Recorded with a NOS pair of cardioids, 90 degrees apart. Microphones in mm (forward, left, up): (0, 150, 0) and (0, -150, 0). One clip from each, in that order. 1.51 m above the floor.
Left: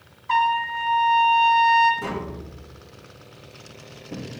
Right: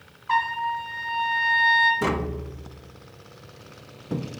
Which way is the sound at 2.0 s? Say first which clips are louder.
Right 4 dB; 40° right.